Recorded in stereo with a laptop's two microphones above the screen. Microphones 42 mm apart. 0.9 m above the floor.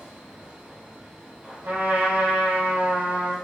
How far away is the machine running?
About 1.5 m.